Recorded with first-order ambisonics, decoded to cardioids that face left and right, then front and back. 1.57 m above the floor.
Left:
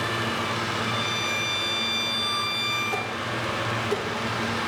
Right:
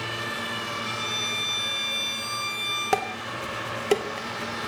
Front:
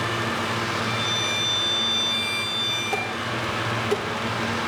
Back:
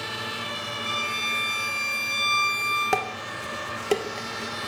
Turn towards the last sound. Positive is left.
turn(degrees=-120)